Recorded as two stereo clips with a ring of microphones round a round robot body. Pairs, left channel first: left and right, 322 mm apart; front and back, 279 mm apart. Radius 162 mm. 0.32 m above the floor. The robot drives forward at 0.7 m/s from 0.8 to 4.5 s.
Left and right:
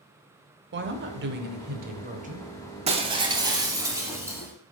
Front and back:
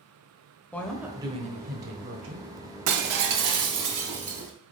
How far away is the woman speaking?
About 1.0 m.